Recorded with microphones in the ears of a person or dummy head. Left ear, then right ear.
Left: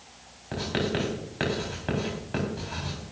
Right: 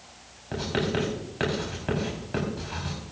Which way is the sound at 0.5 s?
5° left (ahead or behind).